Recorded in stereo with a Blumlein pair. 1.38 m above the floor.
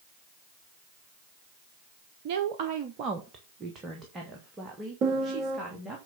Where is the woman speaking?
50° right, 0.9 m; by 6.0 s 10° right, 3 m.